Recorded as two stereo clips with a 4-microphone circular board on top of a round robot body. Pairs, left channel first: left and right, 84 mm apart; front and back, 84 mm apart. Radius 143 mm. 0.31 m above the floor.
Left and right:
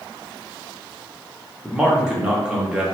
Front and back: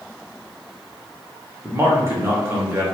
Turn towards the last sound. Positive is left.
turn(degrees=-165)